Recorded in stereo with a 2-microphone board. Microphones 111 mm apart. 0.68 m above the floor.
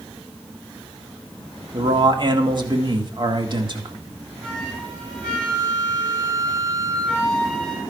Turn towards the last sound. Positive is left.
turn(degrees=10)  # may be behind; listen again after turning